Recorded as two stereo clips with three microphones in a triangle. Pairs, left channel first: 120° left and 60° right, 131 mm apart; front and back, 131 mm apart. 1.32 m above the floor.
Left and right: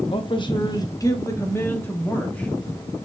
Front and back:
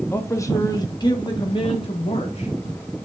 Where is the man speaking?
70° left, 1.5 m; by 2.5 s 40° left, 2.5 m.